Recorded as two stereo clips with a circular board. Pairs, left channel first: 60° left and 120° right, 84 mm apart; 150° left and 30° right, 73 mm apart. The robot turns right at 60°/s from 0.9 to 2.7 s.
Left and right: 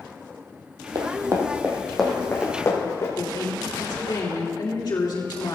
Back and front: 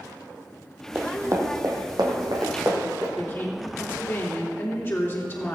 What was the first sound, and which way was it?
Running footsteps, 95° right.